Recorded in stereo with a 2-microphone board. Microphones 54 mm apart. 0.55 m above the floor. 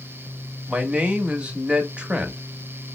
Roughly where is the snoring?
No snoring in this recording.